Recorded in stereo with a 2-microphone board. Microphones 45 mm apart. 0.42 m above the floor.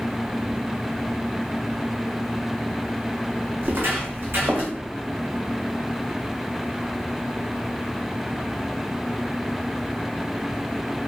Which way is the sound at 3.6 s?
60° right (ahead or behind).